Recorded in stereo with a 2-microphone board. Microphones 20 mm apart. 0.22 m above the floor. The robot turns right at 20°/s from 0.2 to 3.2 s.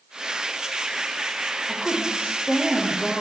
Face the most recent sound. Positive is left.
turn(degrees=-40)